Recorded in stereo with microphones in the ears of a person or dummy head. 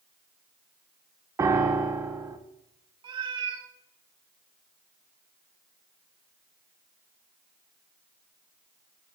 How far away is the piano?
About 0.6 m.